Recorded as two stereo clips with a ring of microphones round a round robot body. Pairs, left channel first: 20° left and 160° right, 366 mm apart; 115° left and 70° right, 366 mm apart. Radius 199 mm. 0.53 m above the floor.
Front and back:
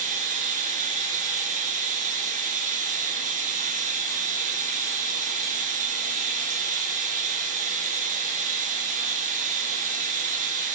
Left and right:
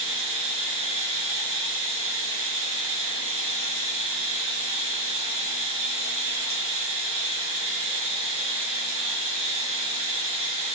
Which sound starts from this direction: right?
Running water, at 0.0 s.